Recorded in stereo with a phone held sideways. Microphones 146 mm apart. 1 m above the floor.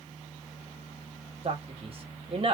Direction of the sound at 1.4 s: 45° right (ahead or behind).